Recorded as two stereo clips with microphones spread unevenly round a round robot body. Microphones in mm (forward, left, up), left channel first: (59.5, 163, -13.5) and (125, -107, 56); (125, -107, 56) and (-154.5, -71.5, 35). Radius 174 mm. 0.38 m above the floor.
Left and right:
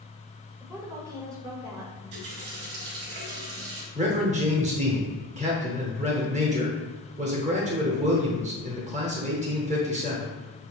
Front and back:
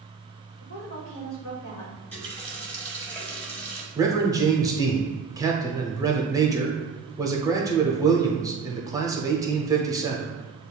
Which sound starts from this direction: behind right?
A man speaking, at 4.0 s.